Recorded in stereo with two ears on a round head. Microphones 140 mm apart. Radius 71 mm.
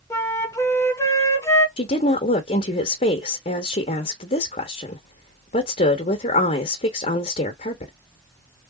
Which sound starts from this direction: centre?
A flute, at 0.1 s.